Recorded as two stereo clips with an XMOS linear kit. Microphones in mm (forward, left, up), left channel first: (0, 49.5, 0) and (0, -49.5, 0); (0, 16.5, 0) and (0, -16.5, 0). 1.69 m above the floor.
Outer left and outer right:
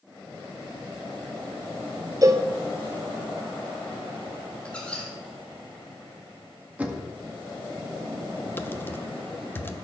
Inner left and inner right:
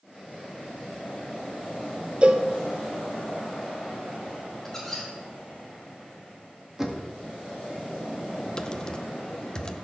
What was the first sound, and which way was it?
A cowbell, 35° right (ahead or behind).